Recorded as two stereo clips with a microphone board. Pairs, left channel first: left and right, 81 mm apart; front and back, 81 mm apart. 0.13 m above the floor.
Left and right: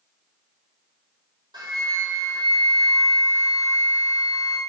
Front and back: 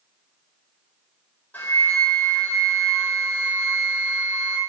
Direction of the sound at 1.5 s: 70° right.